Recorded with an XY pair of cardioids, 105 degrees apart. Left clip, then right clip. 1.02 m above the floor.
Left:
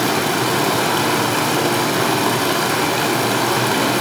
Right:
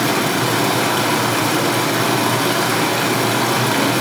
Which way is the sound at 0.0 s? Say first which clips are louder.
Even; 5° left.